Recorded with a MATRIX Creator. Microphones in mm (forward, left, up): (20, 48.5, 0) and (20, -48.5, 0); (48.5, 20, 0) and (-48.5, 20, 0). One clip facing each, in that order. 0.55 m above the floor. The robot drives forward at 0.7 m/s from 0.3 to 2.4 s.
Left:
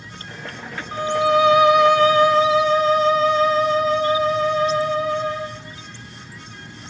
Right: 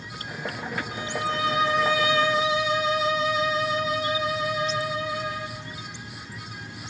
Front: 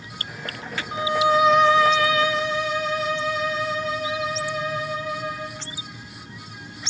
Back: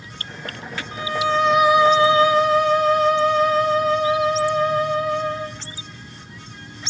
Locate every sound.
0.9 s a violin: 55° left, 0.7 m; by 5.6 s 135° left, 0.9 m